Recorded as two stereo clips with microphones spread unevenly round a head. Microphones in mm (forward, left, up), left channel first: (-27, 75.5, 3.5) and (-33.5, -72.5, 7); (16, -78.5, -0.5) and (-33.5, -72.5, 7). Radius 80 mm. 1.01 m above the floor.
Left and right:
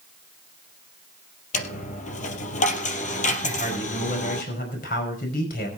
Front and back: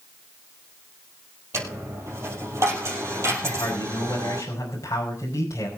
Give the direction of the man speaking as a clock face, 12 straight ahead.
10 o'clock.